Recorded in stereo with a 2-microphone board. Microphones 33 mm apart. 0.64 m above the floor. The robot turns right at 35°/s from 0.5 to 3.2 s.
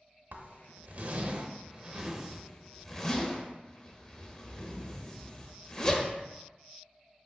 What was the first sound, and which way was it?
A zipper, 60° right (ahead or behind).